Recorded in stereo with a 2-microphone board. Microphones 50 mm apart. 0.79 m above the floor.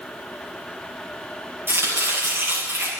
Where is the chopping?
45° right (ahead or behind), 8.5 m.